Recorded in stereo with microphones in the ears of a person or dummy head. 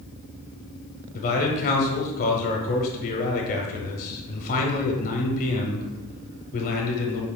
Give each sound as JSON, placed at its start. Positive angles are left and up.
{"t": 1.1, "sound": "a man speaking", "side_deg": 45, "distance_m": 0.9}